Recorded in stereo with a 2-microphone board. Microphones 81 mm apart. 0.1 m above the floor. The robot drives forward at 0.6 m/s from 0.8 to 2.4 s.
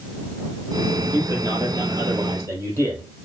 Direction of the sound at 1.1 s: 45° right (ahead or behind).